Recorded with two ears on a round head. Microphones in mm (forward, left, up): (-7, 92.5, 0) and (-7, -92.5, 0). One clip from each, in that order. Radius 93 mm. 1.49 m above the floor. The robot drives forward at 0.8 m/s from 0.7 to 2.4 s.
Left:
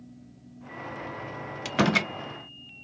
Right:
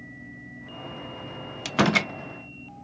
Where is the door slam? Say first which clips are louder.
Right 2 dB; 10° right (ahead or behind); by 2.1 s 5° right (ahead or behind).